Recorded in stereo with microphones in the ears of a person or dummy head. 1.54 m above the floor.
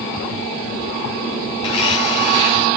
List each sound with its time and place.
1.6 s a blender: 35° left (ahead or behind), 2.5 m